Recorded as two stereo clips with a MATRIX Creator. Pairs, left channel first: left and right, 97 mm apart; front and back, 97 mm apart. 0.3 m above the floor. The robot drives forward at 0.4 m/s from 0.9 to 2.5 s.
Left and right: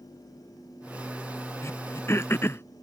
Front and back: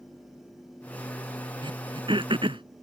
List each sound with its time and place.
1.6 s throat clearing: 150° left; by 2.6 s 155° left